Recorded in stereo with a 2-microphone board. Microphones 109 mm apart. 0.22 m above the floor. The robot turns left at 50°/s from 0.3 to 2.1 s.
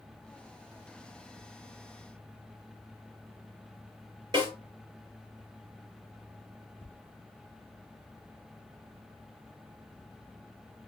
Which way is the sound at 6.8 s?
25° right (ahead or behind).